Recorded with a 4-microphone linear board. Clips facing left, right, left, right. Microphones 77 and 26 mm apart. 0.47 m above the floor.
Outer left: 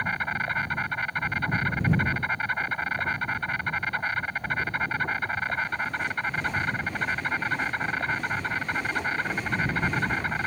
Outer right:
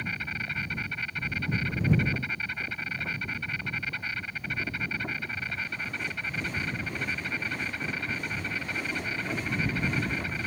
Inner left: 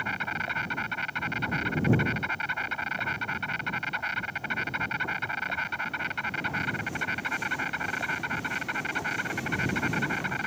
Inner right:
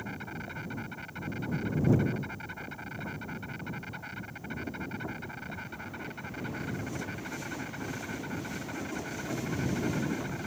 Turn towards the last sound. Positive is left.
turn(degrees=50)  # may be behind; listen again after turning